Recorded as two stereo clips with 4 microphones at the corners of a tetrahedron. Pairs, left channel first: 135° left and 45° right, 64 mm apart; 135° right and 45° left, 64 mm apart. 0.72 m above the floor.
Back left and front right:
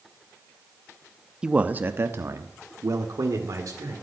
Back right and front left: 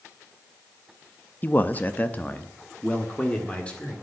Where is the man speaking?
115° right, 0.7 m; by 3.9 s 65° right, 2.5 m.